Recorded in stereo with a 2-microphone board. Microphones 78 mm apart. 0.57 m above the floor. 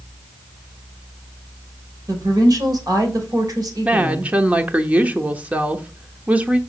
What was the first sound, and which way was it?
A woman speaking, 55° right (ahead or behind).